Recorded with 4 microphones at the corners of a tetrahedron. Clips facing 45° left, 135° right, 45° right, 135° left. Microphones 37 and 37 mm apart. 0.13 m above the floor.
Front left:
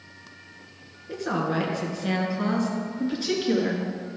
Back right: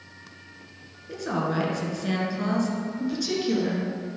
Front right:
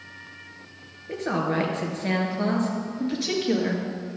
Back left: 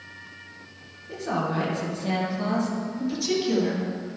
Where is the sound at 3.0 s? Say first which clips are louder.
Front left 2 dB, even; 5° right, 2.5 m.